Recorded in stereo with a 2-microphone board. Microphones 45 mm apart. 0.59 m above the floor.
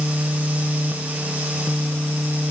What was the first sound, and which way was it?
Only background noise.